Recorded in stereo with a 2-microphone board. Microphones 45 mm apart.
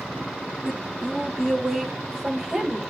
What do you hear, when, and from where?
0.7 s a woman speaking: 5° right (ahead or behind), 5 m; by 2.8 s 15° right (ahead or behind), 6.5 m